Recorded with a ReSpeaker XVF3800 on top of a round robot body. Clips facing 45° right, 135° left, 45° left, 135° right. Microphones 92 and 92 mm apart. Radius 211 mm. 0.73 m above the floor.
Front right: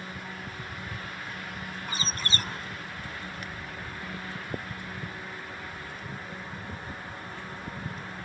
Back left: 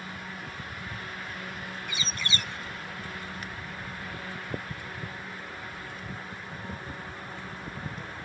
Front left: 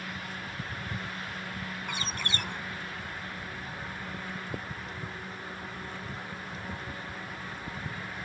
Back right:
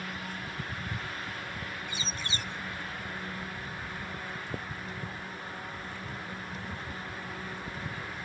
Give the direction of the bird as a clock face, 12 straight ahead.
12 o'clock.